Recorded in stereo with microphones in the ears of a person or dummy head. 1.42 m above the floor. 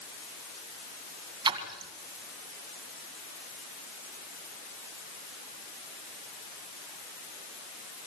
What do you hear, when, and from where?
1.4 s a splash: 25° right (ahead or behind), 2 m